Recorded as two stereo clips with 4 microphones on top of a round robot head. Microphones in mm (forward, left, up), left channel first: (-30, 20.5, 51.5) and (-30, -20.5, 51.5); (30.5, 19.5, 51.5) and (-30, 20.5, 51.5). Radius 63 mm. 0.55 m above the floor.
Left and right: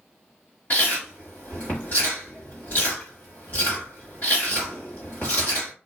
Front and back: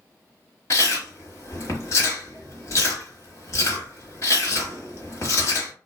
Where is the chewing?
35° left, 1.0 m.